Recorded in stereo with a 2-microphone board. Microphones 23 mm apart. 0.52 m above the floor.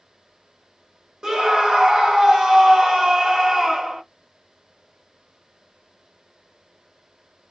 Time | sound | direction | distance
1.2 | a scream | 25° right (ahead or behind) | 0.9 m